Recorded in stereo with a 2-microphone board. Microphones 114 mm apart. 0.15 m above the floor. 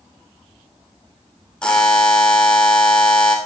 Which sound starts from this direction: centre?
A buzzer, at 1.6 s.